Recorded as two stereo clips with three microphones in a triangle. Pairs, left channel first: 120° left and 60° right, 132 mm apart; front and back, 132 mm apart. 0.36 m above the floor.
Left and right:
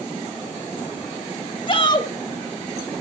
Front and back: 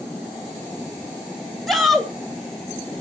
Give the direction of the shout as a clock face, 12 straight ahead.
9 o'clock.